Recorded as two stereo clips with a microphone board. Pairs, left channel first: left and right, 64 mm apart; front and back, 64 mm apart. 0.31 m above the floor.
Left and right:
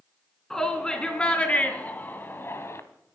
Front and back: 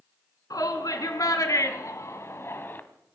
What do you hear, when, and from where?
0.5 s a shout: 10° left, 3 m; by 2.8 s 55° left, 1.8 m